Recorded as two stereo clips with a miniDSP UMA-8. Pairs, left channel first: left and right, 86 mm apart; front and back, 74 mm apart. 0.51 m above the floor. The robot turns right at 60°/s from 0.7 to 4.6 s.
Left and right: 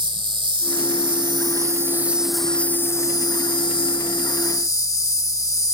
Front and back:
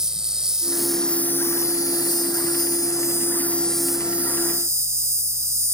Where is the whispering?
I don't hear whispering.